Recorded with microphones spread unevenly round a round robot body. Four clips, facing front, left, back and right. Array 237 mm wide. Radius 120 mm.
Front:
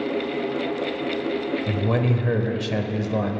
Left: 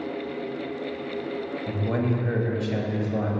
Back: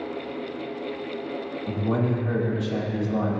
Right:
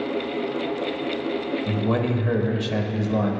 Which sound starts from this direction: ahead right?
A man speaking, at 1.7 s.